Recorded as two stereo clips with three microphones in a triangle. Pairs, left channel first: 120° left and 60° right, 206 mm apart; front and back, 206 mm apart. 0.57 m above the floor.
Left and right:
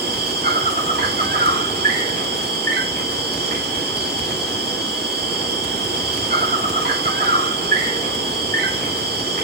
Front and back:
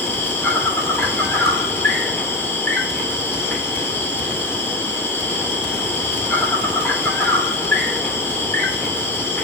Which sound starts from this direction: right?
An insect, at 0.0 s.